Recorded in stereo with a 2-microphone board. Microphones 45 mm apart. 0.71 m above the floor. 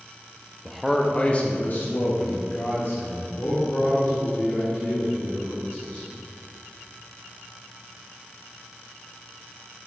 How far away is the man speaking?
About 0.5 m.